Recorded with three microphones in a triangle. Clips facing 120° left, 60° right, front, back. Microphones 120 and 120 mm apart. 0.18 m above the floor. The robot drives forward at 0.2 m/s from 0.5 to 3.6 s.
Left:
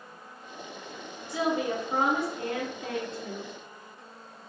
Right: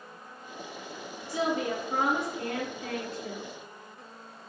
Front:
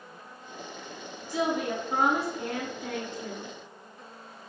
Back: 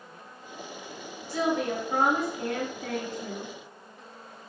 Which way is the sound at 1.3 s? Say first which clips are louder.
Left 1 dB, back 1 dB; 65° left.